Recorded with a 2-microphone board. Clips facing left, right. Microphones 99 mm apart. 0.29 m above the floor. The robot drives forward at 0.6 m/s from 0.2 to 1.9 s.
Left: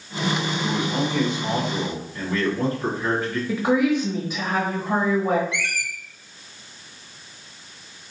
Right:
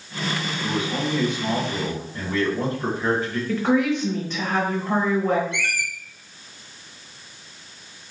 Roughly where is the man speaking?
Centre.